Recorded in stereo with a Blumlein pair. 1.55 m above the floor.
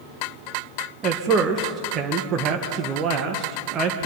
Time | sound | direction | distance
1.0 | a man speaking | 25° right | 1.6 m